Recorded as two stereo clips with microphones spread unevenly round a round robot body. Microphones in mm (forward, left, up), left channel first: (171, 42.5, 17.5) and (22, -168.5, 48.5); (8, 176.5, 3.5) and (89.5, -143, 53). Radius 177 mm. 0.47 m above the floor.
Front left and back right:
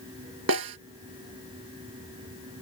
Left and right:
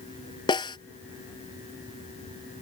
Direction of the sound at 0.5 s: 175° right.